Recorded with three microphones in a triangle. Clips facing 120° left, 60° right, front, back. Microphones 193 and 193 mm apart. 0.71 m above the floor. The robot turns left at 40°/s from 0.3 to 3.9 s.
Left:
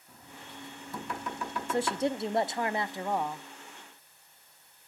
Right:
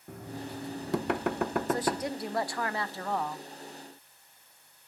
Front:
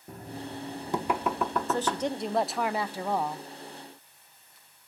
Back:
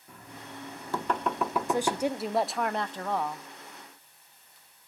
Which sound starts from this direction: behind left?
A woman speaking, at 1.7 s.